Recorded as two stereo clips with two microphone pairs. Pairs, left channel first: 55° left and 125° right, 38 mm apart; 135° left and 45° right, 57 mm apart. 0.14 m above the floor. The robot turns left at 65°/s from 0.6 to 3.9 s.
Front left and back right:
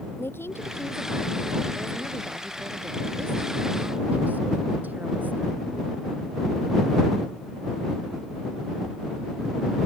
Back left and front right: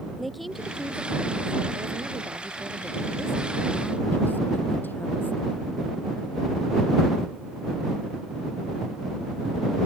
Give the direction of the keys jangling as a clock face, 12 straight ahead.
I don't hear keys jangling.